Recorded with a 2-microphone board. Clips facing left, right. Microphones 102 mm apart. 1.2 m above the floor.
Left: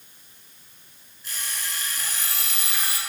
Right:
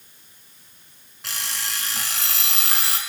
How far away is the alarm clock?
About 5.5 m.